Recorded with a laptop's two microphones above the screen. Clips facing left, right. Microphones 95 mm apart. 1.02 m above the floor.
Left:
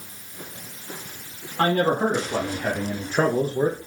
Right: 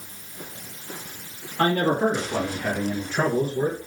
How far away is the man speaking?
About 2.5 m.